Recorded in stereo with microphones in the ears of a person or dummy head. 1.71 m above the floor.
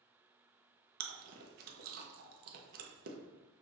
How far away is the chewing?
About 0.7 m.